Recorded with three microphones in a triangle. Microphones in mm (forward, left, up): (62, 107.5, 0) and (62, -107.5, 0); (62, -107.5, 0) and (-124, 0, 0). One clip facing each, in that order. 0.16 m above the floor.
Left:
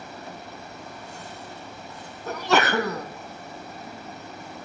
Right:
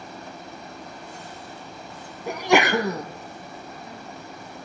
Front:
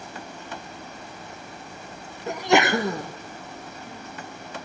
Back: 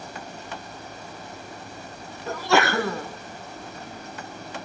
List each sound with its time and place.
2.3 s a sneeze: 45° right, 1.0 m